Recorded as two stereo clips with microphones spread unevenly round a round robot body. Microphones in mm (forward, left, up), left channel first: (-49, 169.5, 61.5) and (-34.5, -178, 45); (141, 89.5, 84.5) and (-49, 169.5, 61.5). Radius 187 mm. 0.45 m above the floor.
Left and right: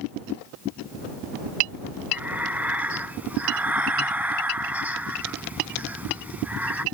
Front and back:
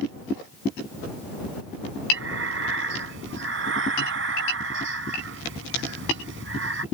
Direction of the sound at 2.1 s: 175° right.